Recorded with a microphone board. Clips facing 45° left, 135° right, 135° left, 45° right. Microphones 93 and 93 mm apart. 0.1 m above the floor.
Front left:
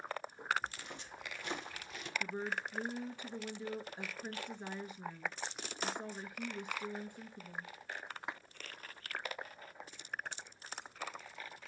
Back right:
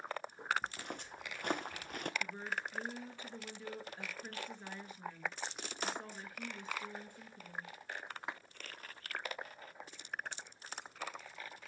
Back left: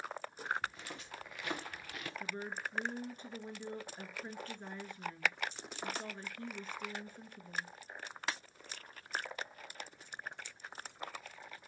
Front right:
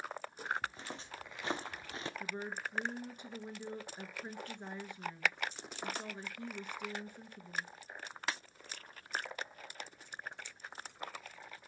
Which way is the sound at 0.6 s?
105° right.